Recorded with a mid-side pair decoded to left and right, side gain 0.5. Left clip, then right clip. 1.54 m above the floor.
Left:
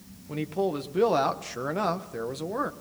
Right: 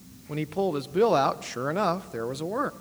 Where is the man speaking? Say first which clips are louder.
Right 1 dB; 20° right, 1.2 m.